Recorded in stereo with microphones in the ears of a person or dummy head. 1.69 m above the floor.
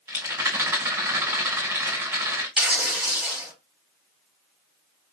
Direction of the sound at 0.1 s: 15° right (ahead or behind).